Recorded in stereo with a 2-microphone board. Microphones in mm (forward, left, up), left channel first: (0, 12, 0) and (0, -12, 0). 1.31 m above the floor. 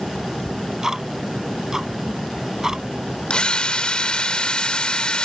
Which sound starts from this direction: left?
A drill, at 3.3 s.